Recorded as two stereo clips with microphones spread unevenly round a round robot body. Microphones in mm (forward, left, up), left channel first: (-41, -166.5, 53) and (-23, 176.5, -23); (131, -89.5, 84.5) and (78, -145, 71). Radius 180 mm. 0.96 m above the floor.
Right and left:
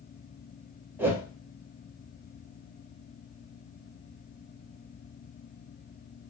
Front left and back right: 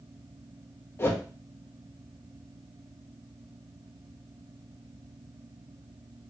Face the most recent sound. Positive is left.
turn(degrees=60)